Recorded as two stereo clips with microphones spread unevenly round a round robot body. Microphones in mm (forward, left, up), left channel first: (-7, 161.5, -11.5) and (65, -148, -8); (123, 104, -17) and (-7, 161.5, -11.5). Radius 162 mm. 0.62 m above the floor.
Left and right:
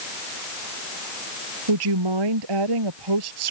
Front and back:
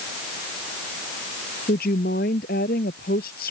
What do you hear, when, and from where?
1.7 s a woman speaking: 70° right